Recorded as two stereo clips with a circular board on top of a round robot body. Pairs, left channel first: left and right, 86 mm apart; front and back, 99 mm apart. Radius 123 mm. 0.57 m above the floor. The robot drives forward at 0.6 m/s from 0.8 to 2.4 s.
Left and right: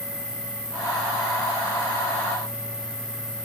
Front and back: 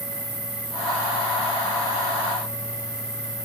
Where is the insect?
170° left, 5 m.